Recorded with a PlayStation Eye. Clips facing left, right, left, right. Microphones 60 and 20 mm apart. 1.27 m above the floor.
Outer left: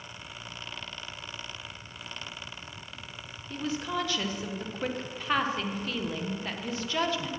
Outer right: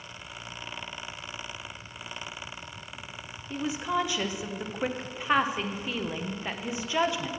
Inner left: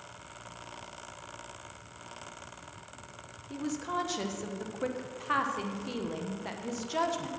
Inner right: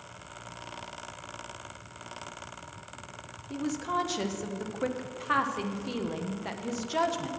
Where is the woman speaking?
15° right (ahead or behind), 0.8 m.